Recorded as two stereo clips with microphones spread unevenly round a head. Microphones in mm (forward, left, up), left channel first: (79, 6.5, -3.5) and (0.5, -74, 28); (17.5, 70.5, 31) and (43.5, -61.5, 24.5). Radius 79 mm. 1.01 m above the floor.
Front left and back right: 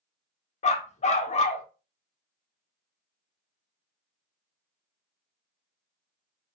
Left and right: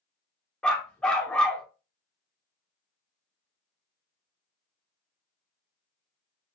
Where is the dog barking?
20° left, 0.7 m.